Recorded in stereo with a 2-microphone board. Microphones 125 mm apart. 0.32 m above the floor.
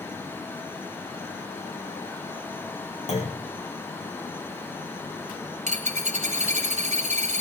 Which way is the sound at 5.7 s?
70° right (ahead or behind).